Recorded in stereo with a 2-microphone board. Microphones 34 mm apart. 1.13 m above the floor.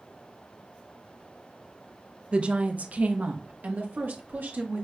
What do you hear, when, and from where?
2.3 s a woman speaking: 35° right (ahead or behind), 0.7 m; by 4.8 s 75° right (ahead or behind), 1.7 m